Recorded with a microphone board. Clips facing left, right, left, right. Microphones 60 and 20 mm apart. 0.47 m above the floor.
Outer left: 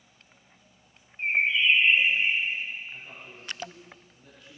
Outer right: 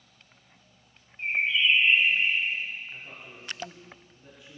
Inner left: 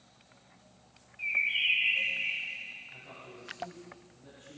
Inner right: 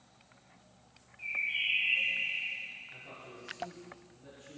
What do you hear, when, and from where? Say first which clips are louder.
1.2 s a bird: outer left 1 dB, inner left 4 dB; 30° left (ahead or behind), 1.8 m
2.9 s a man speaking: even, even; 5° right (ahead or behind), 6.5 m